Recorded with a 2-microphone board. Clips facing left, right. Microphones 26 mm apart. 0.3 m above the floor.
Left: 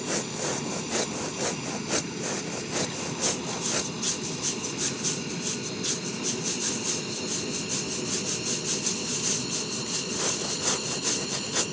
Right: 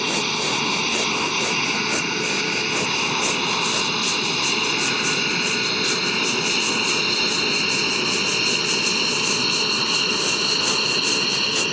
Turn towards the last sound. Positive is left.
turn(degrees=-55)  # may be behind; listen again after turning